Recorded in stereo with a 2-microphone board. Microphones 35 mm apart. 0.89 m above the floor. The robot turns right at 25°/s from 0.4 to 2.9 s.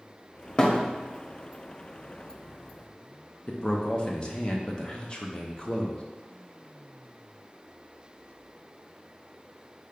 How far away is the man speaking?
About 0.6 m.